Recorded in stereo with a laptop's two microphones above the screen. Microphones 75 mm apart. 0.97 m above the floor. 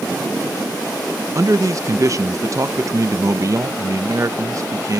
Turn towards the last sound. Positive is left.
turn(degrees=-45)  # may be behind; listen again after turning